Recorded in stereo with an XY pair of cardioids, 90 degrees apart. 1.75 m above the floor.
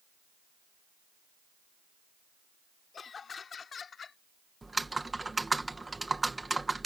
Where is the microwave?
I don't hear a microwave.